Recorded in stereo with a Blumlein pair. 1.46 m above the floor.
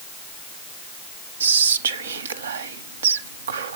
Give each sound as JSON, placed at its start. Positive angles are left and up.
{"t": 1.4, "sound": "whispering", "azimuth_deg": -70, "distance_m": 0.6}